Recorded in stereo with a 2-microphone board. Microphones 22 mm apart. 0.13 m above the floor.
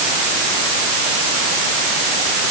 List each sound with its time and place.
Only background noise.